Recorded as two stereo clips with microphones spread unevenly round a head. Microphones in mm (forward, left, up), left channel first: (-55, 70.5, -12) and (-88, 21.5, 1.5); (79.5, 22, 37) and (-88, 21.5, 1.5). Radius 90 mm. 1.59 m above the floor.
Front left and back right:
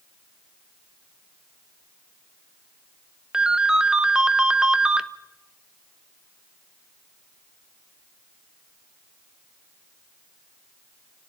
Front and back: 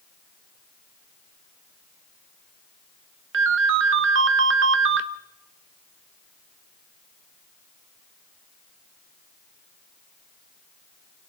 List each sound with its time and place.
3.3 s a ringtone: 170° left, 1.2 m